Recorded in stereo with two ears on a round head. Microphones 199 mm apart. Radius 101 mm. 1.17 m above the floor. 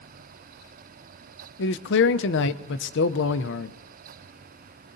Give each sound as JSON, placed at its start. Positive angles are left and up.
{"t": 1.6, "sound": "a man speaking", "side_deg": 55, "distance_m": 0.6}